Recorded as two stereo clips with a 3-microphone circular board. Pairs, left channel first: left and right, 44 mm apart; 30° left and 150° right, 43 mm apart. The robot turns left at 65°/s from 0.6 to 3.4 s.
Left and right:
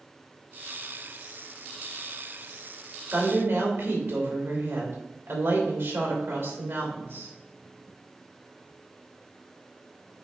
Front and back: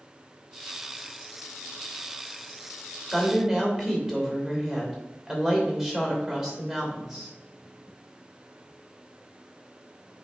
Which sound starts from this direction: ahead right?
A woman speaking, at 3.1 s.